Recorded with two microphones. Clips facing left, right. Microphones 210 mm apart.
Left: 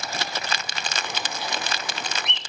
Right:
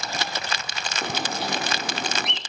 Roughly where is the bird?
Right.